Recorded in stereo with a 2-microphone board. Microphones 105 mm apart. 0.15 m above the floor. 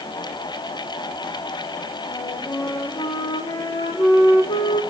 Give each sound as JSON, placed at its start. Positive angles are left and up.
{"t": 2.1, "sound": "a flute", "side_deg": 50, "distance_m": 1.6}